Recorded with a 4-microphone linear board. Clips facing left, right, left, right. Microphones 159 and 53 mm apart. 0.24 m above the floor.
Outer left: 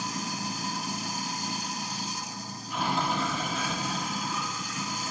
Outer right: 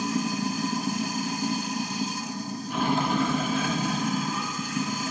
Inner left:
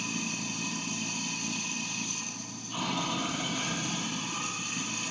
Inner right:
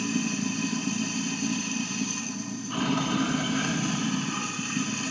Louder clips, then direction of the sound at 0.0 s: Outer right 8 dB, inner right 7 dB; 55° right (ahead or behind).